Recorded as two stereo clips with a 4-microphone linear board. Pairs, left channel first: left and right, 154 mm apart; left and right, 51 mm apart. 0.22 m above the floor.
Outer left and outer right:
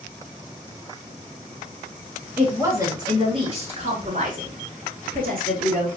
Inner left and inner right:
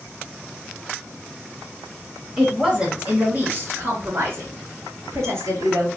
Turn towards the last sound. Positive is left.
turn(degrees=-75)  # may be behind; listen again after turning